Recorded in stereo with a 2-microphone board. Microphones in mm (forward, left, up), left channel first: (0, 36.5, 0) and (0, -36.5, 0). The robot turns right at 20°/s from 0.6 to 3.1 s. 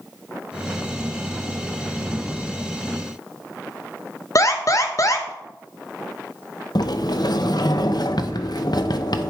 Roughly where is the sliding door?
Left.